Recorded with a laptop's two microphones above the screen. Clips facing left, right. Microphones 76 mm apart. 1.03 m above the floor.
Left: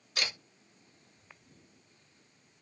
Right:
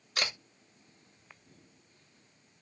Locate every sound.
0.2 s a camera shutter: 55° right (ahead or behind), 1.2 m